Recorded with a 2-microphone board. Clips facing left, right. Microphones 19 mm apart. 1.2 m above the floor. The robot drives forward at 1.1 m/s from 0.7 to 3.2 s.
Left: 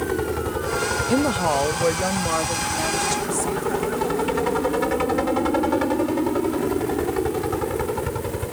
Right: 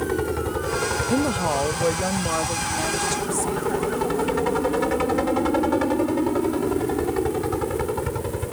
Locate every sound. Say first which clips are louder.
0.0 s a helicopter: even; 5° left (ahead or behind)
1.1 s a woman speaking: left 3 dB; 20° left (ahead or behind); by 3.9 s 5° left (ahead or behind)